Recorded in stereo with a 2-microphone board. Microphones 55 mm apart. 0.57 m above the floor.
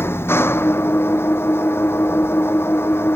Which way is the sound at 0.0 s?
45° left (ahead or behind).